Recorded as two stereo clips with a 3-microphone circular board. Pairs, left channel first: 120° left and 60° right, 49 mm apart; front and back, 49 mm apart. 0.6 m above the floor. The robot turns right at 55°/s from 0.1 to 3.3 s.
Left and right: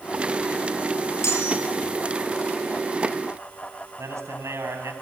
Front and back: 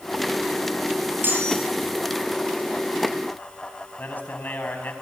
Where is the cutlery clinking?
135° left, 9 m; by 1.6 s 155° left, 9 m.